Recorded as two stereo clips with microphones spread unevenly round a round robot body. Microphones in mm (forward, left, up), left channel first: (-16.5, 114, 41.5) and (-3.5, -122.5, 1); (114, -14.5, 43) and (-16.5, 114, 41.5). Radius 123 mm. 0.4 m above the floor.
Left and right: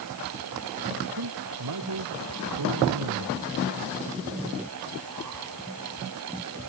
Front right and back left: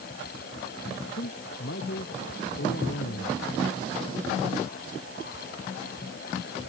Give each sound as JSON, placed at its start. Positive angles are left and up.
{"t": 1.1, "sound": "a man speaking", "azimuth_deg": -95}